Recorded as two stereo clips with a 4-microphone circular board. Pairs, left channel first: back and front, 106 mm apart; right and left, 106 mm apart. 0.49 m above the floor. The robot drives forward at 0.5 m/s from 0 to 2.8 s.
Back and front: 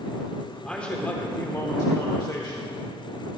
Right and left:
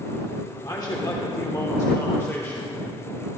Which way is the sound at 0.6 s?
100° right.